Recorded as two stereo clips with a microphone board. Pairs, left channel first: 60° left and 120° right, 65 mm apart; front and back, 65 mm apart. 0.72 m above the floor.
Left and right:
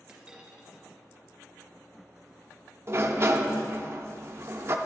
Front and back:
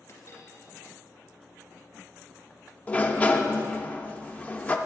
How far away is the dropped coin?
About 1.9 m.